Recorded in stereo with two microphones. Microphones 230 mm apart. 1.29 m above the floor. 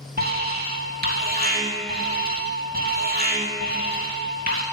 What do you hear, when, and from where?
0.2 s an alarm: 40° right (ahead or behind), 3 m